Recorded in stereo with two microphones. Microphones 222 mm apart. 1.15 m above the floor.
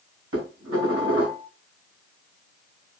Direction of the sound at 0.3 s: 85° right.